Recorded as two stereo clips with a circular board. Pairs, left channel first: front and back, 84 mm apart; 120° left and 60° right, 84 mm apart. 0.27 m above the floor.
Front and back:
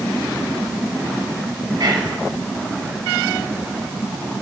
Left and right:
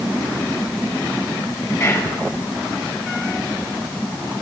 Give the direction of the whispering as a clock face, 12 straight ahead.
6 o'clock.